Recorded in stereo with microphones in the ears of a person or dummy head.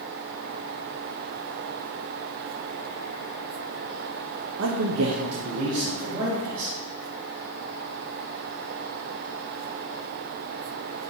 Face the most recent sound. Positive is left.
turn(degrees=-30)  # may be behind; listen again after turning